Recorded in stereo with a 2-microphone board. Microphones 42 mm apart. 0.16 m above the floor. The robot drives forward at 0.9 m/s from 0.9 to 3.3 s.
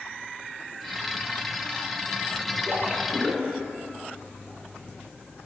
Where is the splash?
10° right (ahead or behind), 1.2 m; by 3.7 s 5° right (ahead or behind), 1.6 m.